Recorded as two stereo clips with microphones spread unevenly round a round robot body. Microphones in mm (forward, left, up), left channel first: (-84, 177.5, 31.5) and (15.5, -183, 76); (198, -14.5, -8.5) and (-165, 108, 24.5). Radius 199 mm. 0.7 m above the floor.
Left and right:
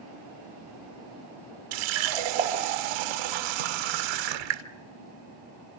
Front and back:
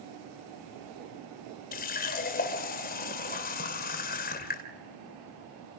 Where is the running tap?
90° right, 1.5 m.